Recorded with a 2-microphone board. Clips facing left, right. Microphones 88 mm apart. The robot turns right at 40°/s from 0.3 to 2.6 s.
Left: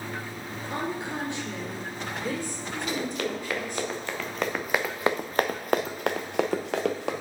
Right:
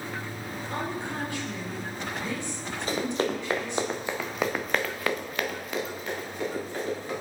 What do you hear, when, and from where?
0.7 s a woman speaking: 10° left, 2 m; by 3.9 s 85° left, 2 m
2.9 s running footsteps: 35° right (ahead or behind), 1.8 m; by 7.1 s 90° left, 1.6 m